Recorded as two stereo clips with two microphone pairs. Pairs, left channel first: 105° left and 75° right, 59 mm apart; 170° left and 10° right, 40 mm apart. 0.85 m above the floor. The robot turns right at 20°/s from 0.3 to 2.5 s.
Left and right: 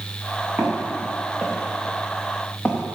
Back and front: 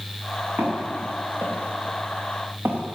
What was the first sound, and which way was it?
Footsteps, 35° right.